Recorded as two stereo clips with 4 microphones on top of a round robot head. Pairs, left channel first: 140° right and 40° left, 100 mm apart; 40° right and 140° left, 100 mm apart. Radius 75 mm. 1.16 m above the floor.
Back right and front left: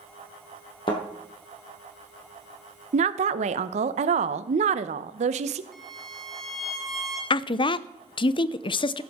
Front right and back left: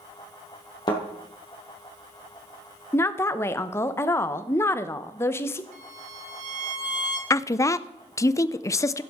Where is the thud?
90° right, 3 m.